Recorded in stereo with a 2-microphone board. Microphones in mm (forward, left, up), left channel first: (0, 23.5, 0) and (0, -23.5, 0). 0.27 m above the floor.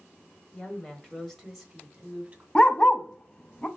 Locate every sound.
0.5 s a woman speaking: 25° left (ahead or behind), 1.3 m; by 2.5 s 20° right (ahead or behind), 1.6 m
2.5 s a dog barking: 20° left (ahead or behind), 0.6 m